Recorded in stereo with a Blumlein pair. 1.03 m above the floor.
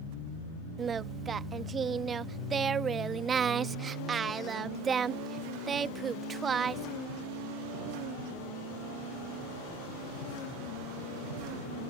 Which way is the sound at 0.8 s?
20° right.